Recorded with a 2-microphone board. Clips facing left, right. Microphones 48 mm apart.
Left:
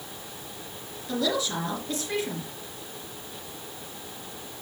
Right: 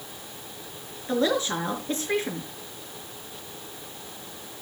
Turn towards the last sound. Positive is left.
turn(degrees=-30)  # may be behind; listen again after turning